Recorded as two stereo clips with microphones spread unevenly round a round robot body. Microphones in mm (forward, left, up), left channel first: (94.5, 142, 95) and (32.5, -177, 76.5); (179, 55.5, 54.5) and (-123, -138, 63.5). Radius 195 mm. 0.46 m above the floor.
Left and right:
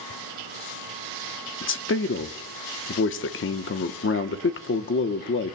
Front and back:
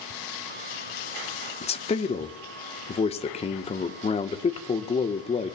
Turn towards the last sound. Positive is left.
turn(degrees=90)